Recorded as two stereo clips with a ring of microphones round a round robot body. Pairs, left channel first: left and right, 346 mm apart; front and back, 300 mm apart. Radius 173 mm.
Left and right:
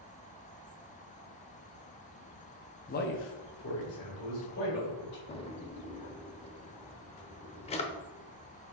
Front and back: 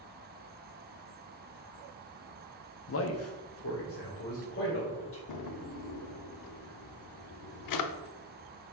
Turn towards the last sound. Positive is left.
turn(degrees=15)